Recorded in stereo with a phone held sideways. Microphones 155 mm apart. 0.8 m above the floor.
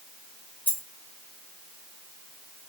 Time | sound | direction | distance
0.7 | a dropped coin | 15° left (ahead or behind) | 1.9 m